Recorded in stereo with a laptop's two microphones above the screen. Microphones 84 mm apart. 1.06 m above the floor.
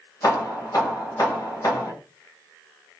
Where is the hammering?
45° left (ahead or behind), 2 m.